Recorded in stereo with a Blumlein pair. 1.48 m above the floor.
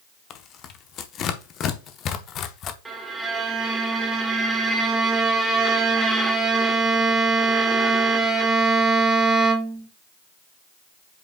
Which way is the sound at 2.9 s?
10° right.